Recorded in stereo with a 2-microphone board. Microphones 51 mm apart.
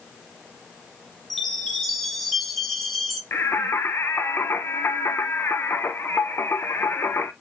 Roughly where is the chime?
Centre.